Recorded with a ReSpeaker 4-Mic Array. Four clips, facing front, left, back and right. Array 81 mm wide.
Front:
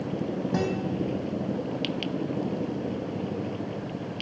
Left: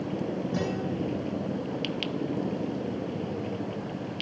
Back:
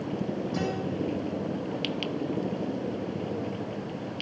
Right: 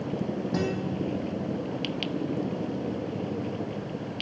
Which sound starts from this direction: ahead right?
A guitar, at 0.5 s.